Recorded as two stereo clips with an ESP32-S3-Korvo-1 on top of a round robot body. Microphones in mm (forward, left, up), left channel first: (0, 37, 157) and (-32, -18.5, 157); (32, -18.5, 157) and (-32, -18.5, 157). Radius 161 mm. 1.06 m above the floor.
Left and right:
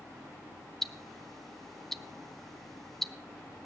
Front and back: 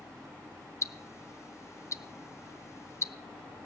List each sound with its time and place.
0.8 s ticking: 25° right, 0.6 m